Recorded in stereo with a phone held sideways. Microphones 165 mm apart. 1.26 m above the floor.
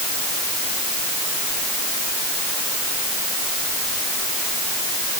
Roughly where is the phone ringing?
No phone ringing in this recording.